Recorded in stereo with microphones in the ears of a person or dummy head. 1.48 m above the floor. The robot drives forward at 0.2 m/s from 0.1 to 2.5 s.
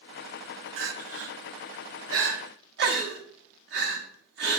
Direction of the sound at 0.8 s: 65° right (ahead or behind).